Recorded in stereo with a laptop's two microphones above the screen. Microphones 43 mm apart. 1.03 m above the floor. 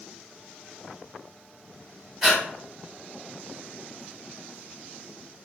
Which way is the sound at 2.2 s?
Centre (ahead or behind).